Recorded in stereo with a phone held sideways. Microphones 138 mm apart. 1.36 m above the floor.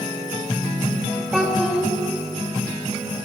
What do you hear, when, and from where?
1.3 s a child speaking: 10° right (ahead or behind), 1.5 m